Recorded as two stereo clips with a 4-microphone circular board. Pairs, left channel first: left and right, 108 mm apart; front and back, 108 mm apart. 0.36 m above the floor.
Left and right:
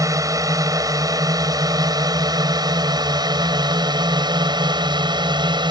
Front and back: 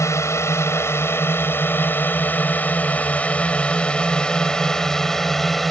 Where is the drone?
50° right; by 5.7 s 90° right.